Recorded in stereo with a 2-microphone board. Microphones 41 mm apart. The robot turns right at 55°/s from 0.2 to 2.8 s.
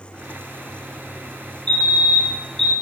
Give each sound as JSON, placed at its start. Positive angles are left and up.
{"t": 1.7, "sound": "a fire alarm", "azimuth_deg": 125, "distance_m": 2.5}